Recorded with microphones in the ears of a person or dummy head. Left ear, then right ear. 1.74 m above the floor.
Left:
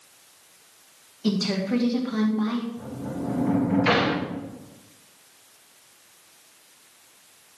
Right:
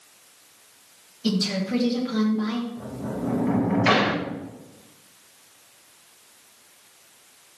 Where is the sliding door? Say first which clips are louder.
Right 2 dB; 20° right (ahead or behind), 1.4 m.